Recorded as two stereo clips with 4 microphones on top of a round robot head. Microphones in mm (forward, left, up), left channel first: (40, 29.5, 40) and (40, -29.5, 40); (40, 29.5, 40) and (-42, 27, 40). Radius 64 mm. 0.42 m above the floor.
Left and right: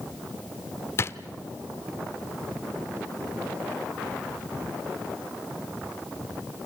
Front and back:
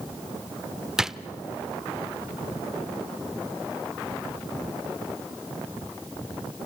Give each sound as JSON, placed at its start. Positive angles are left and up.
{"t": 1.0, "sound": "a drawer", "azimuth_deg": 100, "distance_m": 0.8}